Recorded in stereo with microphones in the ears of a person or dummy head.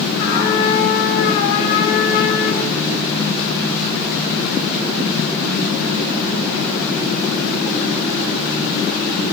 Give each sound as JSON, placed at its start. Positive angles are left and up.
{"t": 0.2, "sound": "a trumpet", "side_deg": 60, "distance_m": 8.0}